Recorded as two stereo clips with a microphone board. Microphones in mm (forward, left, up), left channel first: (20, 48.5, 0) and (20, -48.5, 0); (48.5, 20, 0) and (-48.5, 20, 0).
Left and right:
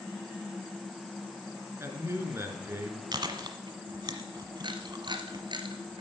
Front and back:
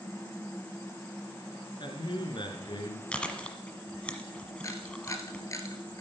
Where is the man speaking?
30° right, 3 m.